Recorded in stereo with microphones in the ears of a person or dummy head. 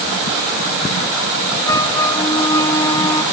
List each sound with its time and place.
1.6 s a flute: 25° left (ahead or behind)